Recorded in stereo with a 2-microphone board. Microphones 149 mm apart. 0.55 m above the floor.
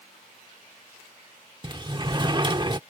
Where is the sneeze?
No sneeze in this recording.